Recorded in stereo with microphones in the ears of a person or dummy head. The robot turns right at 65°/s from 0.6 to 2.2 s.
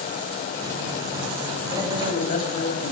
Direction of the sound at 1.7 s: 25° left.